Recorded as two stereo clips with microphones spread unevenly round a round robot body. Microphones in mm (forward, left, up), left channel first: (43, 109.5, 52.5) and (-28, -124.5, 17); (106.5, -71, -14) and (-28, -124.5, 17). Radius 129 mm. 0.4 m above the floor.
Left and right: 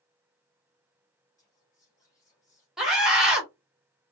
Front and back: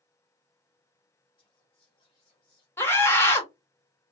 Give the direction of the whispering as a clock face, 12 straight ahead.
12 o'clock.